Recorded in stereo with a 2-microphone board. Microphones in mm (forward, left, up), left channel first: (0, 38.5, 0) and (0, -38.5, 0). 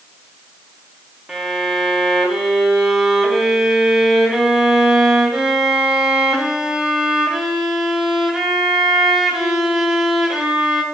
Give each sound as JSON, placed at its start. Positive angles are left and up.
{"t": 1.3, "sound": "a violin", "side_deg": -10, "distance_m": 0.6}